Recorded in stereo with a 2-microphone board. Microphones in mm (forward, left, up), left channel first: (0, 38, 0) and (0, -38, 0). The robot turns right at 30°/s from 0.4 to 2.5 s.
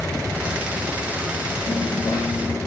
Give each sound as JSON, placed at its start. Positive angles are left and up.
{"t": 1.7, "sound": "a dropped coin", "side_deg": 75, "distance_m": 6.0}